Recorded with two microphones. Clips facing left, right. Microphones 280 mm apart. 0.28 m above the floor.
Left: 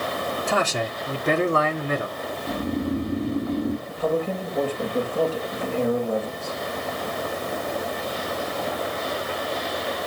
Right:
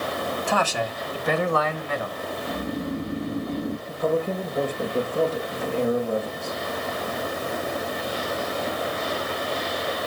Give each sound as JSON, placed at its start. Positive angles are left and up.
{"t": 0.5, "sound": "a man speaking", "side_deg": 25, "distance_m": 1.8}
{"t": 2.5, "sound": "snoring", "side_deg": 20, "distance_m": 3.0}
{"t": 3.9, "sound": "a man speaking", "side_deg": -15, "distance_m": 4.5}